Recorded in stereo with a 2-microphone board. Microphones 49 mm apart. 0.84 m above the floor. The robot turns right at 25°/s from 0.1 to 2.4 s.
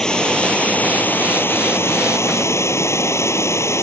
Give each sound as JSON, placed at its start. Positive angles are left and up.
{"t": 0.0, "sound": "running water", "azimuth_deg": 15}